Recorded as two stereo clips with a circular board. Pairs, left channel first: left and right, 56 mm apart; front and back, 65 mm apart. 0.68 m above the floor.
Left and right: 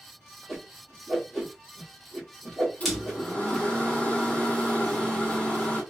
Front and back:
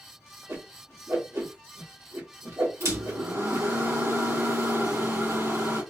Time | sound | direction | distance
0.5 | a whoosh | 175° left | 1.7 m
2.8 | a microwave | 150° left | 1.7 m